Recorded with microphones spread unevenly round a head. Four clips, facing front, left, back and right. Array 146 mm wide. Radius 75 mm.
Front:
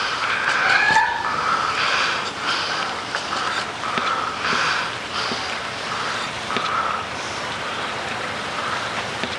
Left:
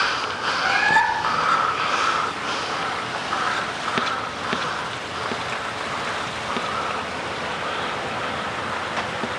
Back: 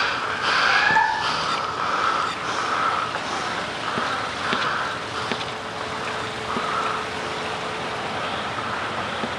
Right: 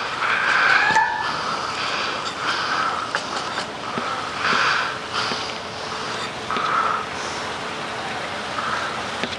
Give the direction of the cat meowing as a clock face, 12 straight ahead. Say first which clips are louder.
Left 1 dB, front 1 dB; 12 o'clock.